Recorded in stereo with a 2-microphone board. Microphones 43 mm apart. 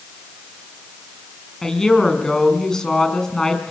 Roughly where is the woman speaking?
Centre.